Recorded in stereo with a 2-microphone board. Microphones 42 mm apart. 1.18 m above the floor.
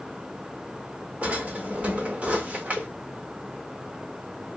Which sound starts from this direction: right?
A drawer, at 1.2 s.